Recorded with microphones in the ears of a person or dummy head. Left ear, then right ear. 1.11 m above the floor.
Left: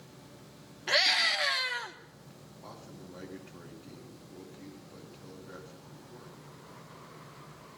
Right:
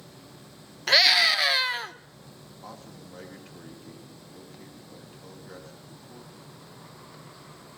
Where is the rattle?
I don't hear a rattle.